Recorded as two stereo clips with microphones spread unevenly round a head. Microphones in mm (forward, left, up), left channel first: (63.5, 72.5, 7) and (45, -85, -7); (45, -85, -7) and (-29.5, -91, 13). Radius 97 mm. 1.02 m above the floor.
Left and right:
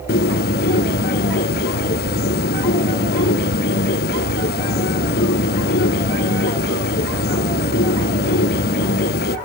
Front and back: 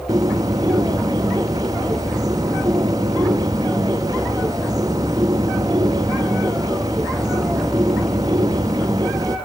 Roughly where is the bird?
Behind left.